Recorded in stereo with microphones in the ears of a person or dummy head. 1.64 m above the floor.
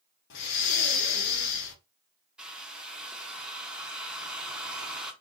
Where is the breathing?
70° left (ahead or behind), 0.7 m.